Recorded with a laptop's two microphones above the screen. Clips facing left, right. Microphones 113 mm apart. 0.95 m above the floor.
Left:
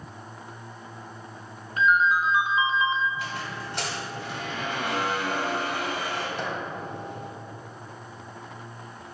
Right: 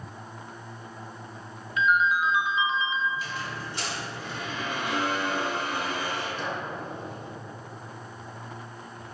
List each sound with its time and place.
1.8 s a ringtone: 40° left (ahead or behind), 1.0 m
3.1 s a squeak: 65° left (ahead or behind), 1.7 m